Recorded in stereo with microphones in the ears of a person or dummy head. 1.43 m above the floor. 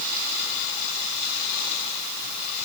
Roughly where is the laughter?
No laughter in this recording.